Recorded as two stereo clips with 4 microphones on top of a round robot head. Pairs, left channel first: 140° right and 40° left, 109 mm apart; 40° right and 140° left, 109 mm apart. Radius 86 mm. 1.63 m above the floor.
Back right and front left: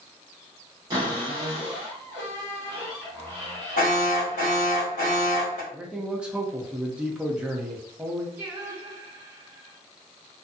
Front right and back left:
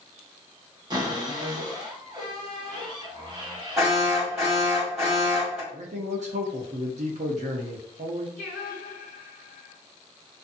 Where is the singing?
35° right, 0.6 m.